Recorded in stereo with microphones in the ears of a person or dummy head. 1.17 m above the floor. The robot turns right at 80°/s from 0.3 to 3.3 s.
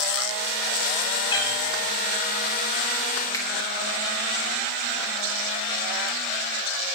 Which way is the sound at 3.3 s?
15° left (ahead or behind).